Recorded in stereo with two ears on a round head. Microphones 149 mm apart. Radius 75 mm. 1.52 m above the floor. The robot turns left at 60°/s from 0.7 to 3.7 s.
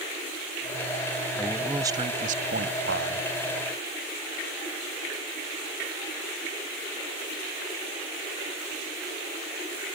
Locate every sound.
1.4 s a man speaking: 10° left; by 3.3 s 105° right